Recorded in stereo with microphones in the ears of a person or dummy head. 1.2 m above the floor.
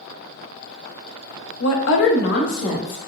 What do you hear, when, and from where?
1.6 s a woman speaking: 75° left (ahead or behind), 0.6 m; by 3.0 s 30° left (ahead or behind), 1.1 m